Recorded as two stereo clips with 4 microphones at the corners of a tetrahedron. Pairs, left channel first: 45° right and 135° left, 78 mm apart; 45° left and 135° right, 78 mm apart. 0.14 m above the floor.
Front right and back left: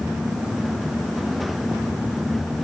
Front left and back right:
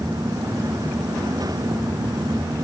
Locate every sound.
Only background noise.